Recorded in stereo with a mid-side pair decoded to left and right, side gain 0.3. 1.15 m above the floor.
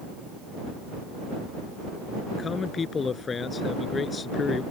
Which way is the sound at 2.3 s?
55° left.